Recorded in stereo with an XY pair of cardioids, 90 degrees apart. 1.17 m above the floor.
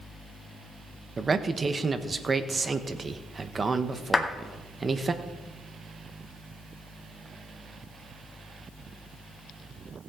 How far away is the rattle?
No rattle in this recording.